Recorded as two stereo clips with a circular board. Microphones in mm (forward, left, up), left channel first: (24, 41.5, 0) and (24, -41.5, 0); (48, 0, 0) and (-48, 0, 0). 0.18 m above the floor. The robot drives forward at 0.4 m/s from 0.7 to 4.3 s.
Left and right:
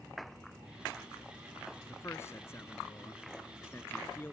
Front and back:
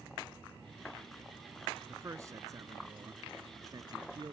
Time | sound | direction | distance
1.9 | a man speaking | 135° left | ?